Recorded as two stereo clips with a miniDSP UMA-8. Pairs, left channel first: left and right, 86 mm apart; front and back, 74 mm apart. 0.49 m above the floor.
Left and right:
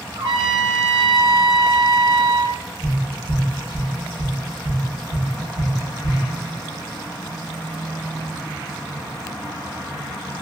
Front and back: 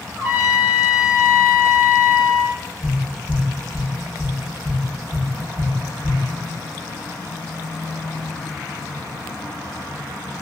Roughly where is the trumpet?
Right.